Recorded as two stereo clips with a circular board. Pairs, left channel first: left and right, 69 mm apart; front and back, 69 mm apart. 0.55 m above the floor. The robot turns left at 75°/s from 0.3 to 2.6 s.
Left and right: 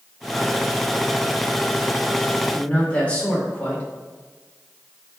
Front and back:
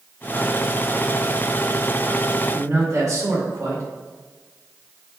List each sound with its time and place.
2.5 s a man speaking: 160° left, 2 m; by 3.9 s 155° left, 2 m